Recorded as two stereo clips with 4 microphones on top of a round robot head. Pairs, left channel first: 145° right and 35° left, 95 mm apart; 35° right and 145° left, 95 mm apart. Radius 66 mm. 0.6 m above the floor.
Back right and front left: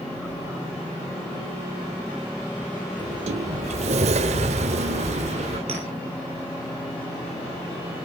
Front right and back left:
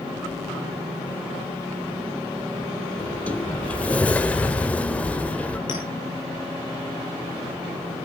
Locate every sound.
3.0 s a sliding door: 45° left, 0.8 m
5.7 s a clink: 10° left, 9 m